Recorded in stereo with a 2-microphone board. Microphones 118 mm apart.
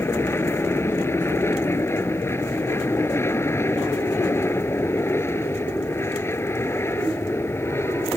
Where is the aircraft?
20° left (ahead or behind).